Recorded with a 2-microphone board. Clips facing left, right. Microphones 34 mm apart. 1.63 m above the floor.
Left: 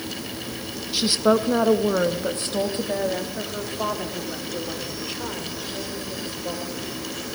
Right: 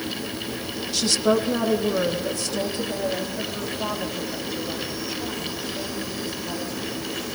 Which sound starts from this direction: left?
A woman speaking, at 0.9 s.